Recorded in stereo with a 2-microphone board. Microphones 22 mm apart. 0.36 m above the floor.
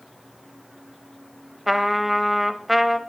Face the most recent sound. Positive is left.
turn(degrees=-5)  # may be behind; listen again after turning